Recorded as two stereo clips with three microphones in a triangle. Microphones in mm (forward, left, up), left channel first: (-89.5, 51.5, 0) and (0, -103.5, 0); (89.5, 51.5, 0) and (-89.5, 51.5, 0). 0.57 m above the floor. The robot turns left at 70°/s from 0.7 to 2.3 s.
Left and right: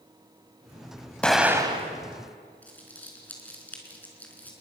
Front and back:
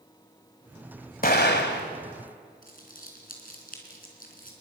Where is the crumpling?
40° left, 4 m.